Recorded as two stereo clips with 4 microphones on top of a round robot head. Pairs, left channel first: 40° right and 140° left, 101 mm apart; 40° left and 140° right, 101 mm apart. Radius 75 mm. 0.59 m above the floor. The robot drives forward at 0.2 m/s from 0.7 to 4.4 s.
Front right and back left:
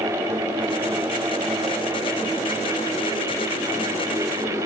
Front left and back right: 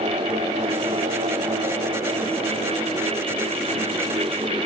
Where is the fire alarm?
No fire alarm in this recording.